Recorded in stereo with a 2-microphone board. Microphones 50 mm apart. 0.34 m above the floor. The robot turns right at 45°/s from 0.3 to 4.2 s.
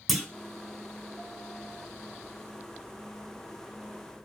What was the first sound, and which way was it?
A clunk, centre (ahead or behind).